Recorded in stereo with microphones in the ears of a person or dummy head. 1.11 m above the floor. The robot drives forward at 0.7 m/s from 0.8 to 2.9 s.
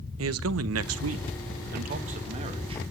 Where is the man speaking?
75° right (ahead or behind), 0.8 m; by 2.8 s 30° right (ahead or behind), 1.7 m.